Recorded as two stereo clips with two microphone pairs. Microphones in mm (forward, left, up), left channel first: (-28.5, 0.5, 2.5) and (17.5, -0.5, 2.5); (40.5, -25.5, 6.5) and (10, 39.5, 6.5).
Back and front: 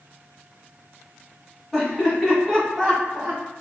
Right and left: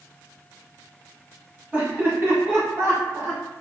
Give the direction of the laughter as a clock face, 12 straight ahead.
9 o'clock.